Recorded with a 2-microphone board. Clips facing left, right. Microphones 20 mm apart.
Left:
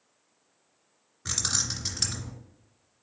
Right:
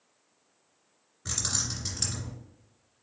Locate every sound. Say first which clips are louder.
1.2 s keys jangling: left 3 dB; 15° left (ahead or behind), 1.4 m